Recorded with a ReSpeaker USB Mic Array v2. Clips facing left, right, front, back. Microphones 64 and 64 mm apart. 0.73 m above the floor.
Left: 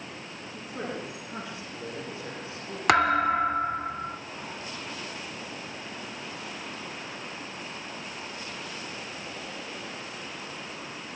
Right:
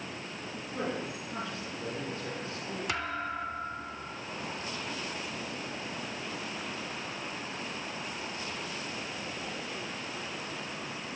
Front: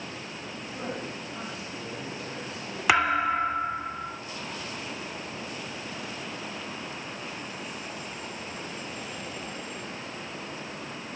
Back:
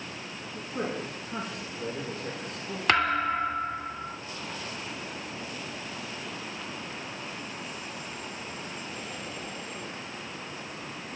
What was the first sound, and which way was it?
A man speaking, straight behind.